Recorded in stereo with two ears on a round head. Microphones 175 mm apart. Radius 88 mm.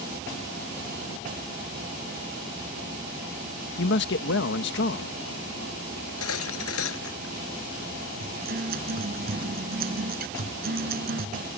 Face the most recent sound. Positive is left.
turn(degrees=-50)  # may be behind; listen again after turning